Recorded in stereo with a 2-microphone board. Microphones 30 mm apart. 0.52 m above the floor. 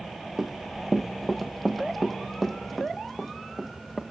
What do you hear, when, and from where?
0.4 s running footsteps: 15° right (ahead or behind), 0.7 m; by 4.0 s 10° left (ahead or behind), 2.5 m